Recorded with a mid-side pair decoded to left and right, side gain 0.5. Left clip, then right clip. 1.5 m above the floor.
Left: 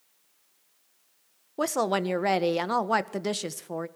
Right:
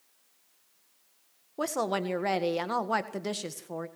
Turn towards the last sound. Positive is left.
turn(degrees=25)